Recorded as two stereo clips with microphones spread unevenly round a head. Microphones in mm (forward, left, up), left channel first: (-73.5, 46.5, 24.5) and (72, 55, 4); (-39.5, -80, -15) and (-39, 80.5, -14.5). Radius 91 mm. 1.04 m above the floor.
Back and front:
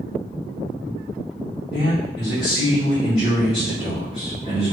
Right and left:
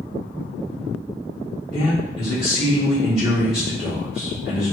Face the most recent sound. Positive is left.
turn(degrees=-115)